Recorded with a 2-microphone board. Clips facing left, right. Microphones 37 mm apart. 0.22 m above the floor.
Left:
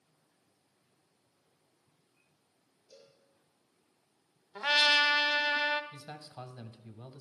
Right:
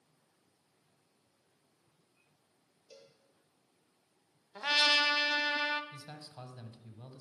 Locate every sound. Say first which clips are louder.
2.9 s a cowbell: right 1 dB; 80° right, 2.5 m
4.5 s a trumpet: left 3 dB; 15° left (ahead or behind), 0.6 m
5.9 s a man speaking: left 2 dB; 15° left (ahead or behind), 1.0 m